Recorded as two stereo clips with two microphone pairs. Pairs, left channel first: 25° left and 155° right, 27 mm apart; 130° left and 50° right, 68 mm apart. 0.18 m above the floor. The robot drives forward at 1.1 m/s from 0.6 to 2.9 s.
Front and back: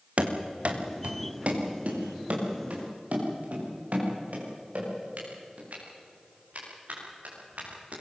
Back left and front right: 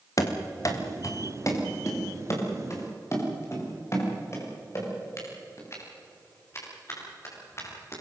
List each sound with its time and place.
0.2 s running footsteps: 165° left, 2.5 m; by 8.0 s 175° left, 10.5 m